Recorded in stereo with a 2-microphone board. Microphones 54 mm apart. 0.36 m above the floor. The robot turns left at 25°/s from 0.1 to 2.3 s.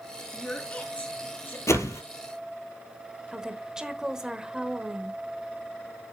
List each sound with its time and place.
0.3 s a woman speaking: 15° left (ahead or behind), 3.5 m; by 1.6 s 45° left (ahead or behind), 3.5 m
1.7 s a whoosh: 80° left, 1.4 m; by 2.0 s 85° left, 1.4 m
3.3 s a woman speaking: 15° right (ahead or behind), 1.0 m